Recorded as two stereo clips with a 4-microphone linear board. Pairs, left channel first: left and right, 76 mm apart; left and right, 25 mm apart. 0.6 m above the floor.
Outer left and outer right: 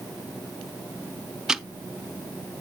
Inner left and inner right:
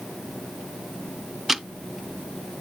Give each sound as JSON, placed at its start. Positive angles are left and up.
{"t": 1.5, "sound": "ticking", "side_deg": -10, "distance_m": 0.5}